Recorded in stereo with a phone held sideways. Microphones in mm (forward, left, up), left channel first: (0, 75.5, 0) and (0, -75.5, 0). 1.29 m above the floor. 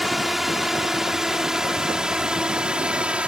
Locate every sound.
0.0 s a drone: centre (ahead or behind); by 3.3 s 5° right (ahead or behind)